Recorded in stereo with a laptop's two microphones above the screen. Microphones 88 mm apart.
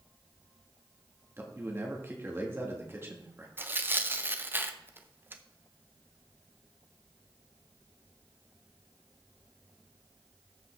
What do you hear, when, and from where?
1.4 s a man speaking: 25° right (ahead or behind), 1.4 m
3.6 s tearing paper: 25° right (ahead or behind), 0.6 m